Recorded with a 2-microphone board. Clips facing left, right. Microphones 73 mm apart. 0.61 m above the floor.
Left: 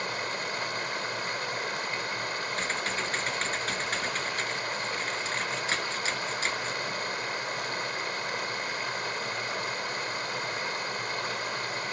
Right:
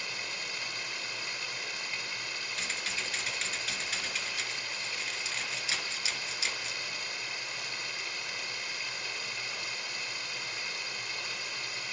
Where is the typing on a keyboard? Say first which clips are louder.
Left 5 dB; 40° left (ahead or behind), 3.5 m.